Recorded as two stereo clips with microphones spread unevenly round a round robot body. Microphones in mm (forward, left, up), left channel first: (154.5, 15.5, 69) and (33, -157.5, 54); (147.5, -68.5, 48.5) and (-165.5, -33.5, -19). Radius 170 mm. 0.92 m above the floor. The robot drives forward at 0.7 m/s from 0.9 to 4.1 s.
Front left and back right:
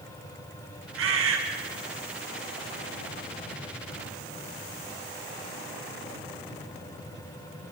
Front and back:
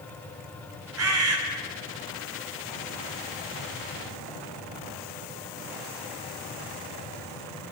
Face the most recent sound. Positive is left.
turn(degrees=-155)